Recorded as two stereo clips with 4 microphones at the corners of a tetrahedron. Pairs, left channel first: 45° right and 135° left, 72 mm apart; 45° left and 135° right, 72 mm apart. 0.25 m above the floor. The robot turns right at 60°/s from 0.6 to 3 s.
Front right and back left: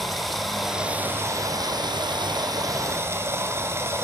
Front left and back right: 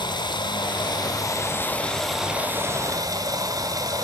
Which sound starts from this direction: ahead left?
Running water, at 0.0 s.